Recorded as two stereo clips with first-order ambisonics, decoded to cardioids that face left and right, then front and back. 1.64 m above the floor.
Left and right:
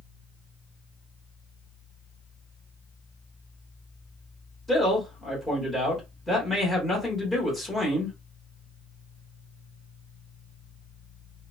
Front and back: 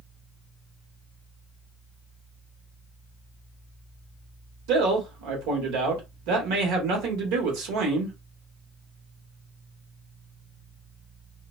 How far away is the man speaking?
About 1.2 m.